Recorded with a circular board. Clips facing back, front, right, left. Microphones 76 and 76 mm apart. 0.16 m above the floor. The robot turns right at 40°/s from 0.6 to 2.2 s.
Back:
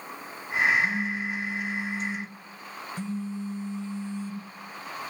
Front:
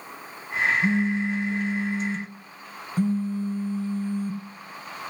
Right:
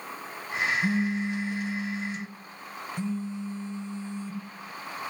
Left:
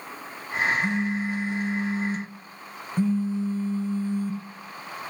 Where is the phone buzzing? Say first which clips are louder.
Front 5 dB, left 1 dB; 10° right, 1.5 m; by 4.4 s 45° left, 1.5 m.